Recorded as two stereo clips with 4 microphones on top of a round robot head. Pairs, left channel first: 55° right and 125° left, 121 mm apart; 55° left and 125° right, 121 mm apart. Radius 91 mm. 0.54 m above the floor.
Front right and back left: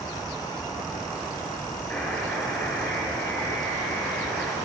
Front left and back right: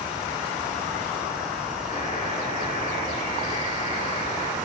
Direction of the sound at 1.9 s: 30° left.